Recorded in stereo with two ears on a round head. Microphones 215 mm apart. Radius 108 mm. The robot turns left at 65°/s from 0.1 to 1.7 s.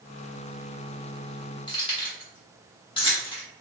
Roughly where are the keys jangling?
Left.